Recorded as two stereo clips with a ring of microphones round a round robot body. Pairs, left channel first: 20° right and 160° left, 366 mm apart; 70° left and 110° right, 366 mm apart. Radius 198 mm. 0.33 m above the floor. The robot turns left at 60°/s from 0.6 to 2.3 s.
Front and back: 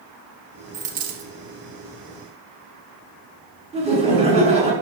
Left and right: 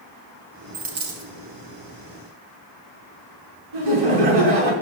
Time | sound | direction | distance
0.7 | a dropped coin | 155° right | 2.5 m
3.7 | laughter | 130° right | 5 m